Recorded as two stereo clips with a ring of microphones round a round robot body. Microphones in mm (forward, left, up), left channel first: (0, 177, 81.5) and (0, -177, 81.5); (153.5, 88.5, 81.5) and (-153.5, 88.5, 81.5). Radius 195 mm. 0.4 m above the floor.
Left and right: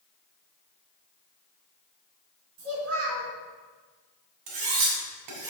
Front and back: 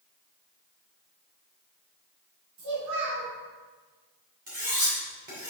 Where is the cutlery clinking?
115° right, 2.5 m.